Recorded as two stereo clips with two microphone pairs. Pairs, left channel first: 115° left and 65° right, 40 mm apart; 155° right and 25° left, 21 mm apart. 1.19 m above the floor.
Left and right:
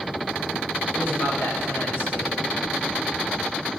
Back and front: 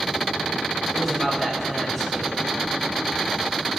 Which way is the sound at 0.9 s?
120° left.